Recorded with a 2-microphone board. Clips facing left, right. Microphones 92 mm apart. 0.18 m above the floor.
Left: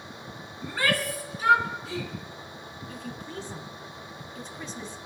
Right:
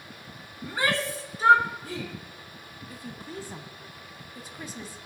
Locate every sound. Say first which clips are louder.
0.6 s a shout: even; 15° right (ahead or behind), 1.8 m; by 2.1 s 45° right (ahead or behind), 2.5 m
2.9 s a woman speaking: left 1 dB; 10° right (ahead or behind), 1.0 m